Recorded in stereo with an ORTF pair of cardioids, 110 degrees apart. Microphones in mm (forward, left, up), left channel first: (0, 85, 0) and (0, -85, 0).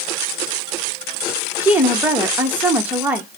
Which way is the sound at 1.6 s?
10° right.